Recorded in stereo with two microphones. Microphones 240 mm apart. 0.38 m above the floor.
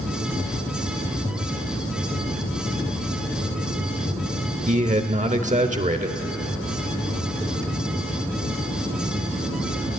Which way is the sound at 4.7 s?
30° right (ahead or behind).